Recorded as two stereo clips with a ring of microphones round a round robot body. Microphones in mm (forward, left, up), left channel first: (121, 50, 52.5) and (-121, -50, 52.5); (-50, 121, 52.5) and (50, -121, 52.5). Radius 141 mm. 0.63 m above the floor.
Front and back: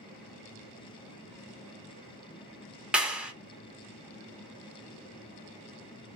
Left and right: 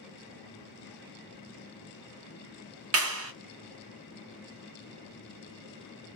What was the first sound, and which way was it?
A clap, 70° right.